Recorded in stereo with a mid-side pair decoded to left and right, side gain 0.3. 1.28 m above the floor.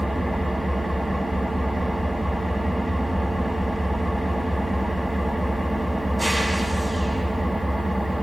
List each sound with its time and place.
0.0 s an engine running: 10° right, 6.5 m